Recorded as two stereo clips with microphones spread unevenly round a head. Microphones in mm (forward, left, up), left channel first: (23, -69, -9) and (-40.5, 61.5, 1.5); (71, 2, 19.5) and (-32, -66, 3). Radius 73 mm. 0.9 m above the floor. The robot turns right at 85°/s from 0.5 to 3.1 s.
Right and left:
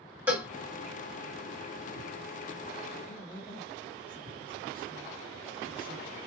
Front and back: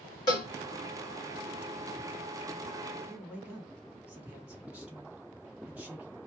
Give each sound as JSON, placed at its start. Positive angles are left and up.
{"t": 0.3, "sound": "a cowbell", "azimuth_deg": 50, "distance_m": 0.8}
{"t": 3.1, "sound": "a man speaking", "azimuth_deg": -75, "distance_m": 1.9}